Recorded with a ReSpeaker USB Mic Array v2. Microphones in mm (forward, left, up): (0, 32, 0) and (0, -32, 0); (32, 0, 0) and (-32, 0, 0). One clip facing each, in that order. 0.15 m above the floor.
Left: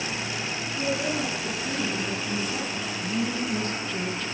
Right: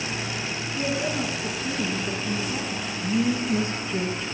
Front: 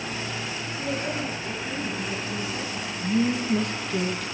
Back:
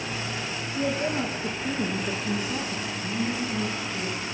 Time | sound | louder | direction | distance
0.8 | a woman speaking | right 1 dB, back 4 dB | 160° right | 9.5 m
2.9 | a woman speaking | right 6 dB, front 9 dB | 20° right | 4.5 m